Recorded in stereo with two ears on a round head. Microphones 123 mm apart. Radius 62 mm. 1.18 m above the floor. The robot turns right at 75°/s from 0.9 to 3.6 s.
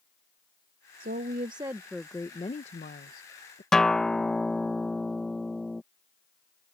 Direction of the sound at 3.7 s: 5° left (ahead or behind).